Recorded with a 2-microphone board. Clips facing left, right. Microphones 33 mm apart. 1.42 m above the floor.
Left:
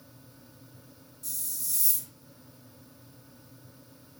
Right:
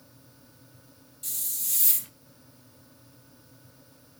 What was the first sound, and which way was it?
A hiss, 70° right (ahead or behind).